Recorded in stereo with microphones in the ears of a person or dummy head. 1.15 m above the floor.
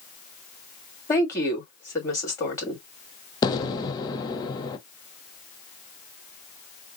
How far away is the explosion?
About 0.5 m.